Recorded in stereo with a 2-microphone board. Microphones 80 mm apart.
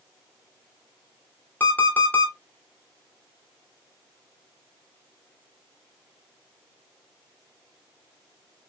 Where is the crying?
No crying in this recording.